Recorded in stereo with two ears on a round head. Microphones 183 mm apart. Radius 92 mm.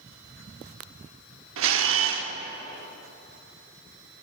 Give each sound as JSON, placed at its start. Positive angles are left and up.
{"t": 1.6, "sound": "a camera shutter", "side_deg": -70, "distance_m": 0.9}